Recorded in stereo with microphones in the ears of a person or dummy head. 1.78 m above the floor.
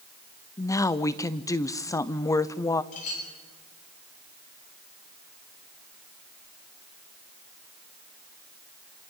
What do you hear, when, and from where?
0.6 s a woman speaking: 15° left (ahead or behind), 0.7 m
2.9 s a clink: 40° left (ahead or behind), 8.5 m